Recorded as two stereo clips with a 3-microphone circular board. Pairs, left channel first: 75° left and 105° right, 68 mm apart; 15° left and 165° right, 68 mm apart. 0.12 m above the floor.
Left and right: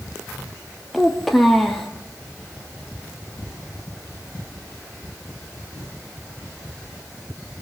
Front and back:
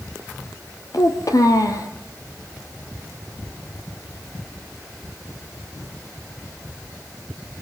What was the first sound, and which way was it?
A child speaking, 15° right.